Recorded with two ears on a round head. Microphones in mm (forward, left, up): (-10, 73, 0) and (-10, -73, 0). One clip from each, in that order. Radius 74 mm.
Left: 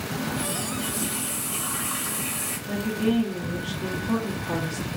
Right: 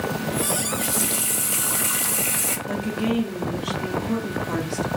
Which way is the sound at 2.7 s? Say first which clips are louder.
Left 3 dB; 25° right (ahead or behind).